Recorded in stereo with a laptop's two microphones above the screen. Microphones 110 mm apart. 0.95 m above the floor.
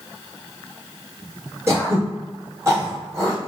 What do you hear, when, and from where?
1.7 s throat clearing: 25° right (ahead or behind), 1.2 m